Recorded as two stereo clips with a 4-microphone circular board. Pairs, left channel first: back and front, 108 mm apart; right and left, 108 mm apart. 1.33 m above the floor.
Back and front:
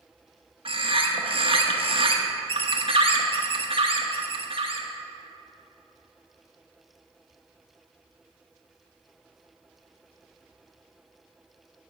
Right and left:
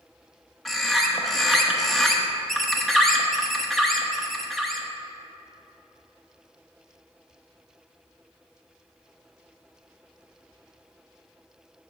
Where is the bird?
Straight ahead, 0.9 m.